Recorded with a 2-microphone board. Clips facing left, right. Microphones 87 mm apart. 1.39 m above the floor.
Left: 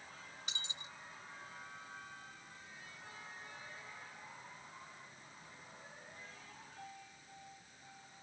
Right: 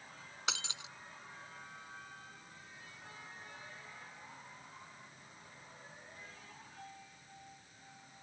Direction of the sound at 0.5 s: 85° right.